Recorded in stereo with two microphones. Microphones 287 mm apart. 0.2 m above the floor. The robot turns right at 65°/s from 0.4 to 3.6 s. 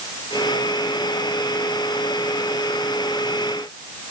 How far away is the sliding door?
I don't hear a sliding door.